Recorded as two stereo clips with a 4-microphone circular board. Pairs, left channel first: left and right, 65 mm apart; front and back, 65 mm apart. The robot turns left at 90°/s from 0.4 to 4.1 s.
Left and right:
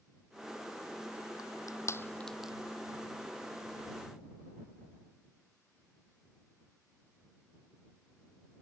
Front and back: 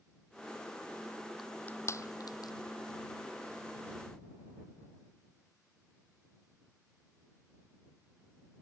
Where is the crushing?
90° left; by 2.5 s 15° right.